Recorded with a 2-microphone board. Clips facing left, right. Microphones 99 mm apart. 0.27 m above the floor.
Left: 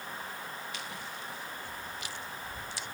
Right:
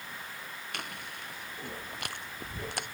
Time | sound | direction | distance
0.7 | chewing | 60° right (ahead or behind) | ?